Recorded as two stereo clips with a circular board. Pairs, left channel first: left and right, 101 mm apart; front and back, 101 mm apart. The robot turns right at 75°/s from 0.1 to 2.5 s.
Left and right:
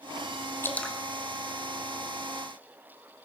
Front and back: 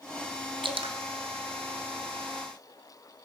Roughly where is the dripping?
Behind left.